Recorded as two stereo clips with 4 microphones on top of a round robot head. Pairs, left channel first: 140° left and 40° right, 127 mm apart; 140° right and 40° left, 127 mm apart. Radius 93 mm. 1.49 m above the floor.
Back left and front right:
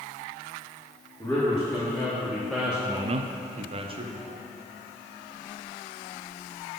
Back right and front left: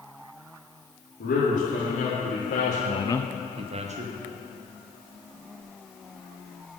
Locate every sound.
1.2 s a man speaking: 145° right, 3 m; by 4.1 s 10° left, 1.4 m